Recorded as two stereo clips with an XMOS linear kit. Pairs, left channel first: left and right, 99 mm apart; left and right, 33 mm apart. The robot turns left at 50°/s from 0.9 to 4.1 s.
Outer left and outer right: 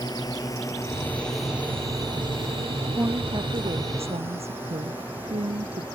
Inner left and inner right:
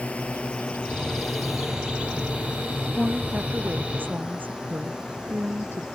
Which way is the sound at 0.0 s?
45° left (ahead or behind).